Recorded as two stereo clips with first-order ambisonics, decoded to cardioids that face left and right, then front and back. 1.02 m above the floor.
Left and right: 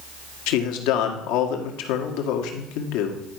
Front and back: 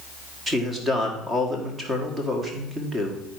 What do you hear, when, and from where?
0.5 s a man speaking: 105° left, 1.7 m